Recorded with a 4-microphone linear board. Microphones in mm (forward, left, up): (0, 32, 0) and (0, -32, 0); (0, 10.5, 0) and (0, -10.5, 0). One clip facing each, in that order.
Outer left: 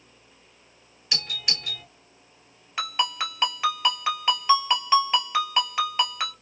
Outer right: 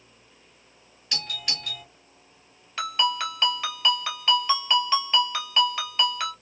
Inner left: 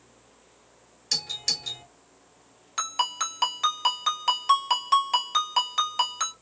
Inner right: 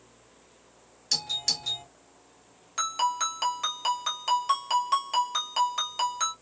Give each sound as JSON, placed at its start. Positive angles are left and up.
{"t": 1.1, "sound": "a doorbell", "side_deg": 5, "distance_m": 2.0}
{"t": 2.8, "sound": "a ringtone", "side_deg": 15, "distance_m": 1.6}